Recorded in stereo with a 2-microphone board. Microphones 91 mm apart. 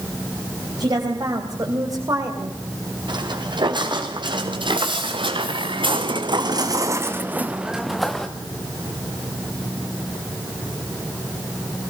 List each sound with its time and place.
0.8 s a woman speaking: 50° right (ahead or behind), 4 m; by 2.6 s 40° right (ahead or behind), 2.5 m
3.1 s footsteps: 60° right (ahead or behind), 5 m; by 8.3 s 5° left (ahead or behind), 2.5 m